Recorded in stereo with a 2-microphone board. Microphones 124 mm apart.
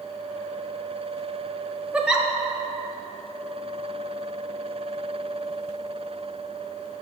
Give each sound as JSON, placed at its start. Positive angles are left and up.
{"t": 1.9, "sound": "a giggle", "side_deg": -10, "distance_m": 0.5}